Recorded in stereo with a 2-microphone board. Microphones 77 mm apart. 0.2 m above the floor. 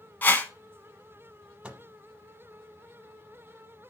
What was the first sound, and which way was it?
A whoosh, 25° left (ahead or behind).